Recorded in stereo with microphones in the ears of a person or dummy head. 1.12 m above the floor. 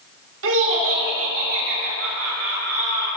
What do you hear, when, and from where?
0.4 s laughter: 70° right (ahead or behind), 2 m; by 3.1 s 85° right, 4 m